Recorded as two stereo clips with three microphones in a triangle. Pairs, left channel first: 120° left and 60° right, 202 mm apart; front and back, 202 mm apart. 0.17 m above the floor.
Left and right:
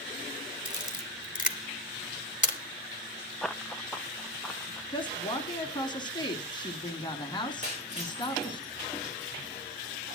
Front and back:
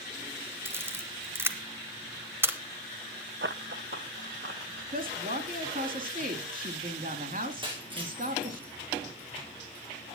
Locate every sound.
0.7 s a camera shutter: 110° left, 1.4 m
3.4 s running footsteps: 155° right, 0.6 m
4.9 s a woman speaking: 175° left, 1.6 m
7.6 s breaking glass: 115° right, 5.5 m